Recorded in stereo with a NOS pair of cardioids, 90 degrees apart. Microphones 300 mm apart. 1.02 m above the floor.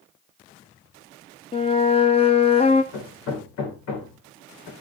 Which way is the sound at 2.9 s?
65° left.